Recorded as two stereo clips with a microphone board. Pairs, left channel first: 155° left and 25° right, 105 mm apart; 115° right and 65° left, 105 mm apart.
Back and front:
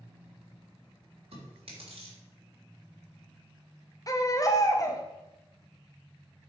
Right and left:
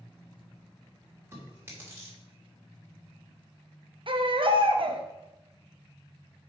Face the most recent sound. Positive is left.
turn(degrees=100)